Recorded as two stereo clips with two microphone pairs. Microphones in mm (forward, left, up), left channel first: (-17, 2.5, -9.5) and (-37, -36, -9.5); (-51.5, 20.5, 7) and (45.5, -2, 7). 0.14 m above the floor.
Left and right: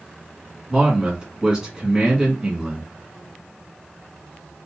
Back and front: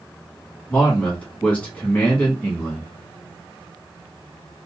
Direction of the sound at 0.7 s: 150° right.